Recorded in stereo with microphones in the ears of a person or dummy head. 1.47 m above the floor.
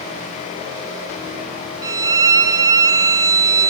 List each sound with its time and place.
1.8 s a violin: 15° right (ahead or behind), 1.2 m